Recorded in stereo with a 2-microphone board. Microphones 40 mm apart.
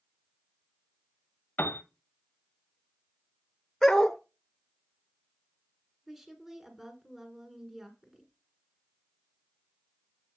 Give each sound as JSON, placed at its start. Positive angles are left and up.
{"t": 1.6, "sound": "a piano", "side_deg": 50, "distance_m": 0.8}
{"t": 3.8, "sound": "a dog barking", "side_deg": 10, "distance_m": 0.8}
{"t": 6.1, "sound": "a woman speaking", "side_deg": -10, "distance_m": 1.4}